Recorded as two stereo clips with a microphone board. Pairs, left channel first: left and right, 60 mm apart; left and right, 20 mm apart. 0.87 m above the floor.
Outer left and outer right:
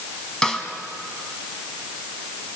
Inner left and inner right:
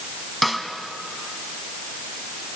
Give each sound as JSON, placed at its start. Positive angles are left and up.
{"t": 0.4, "sound": "a snare drum", "side_deg": 10, "distance_m": 1.9}